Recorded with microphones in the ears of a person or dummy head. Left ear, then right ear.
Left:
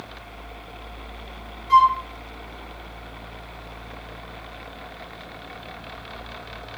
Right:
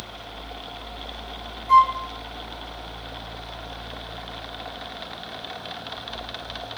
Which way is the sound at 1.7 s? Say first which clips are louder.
Even; 60° right (ahead or behind).